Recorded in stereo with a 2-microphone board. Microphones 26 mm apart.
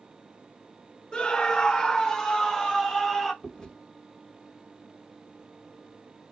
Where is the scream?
30° left (ahead or behind), 0.9 m; by 3.3 s 5° right (ahead or behind), 1.8 m.